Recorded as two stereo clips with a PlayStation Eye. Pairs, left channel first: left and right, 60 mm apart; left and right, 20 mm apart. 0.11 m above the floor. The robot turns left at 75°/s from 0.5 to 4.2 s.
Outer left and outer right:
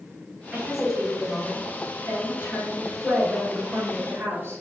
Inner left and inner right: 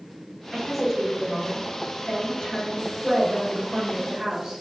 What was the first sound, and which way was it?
A woman speaking, 160° right.